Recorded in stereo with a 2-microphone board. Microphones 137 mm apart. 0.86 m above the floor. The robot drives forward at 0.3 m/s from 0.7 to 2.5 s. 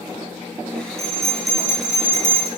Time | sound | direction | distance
1.0 | a bell | 45° right (ahead or behind) | 0.5 m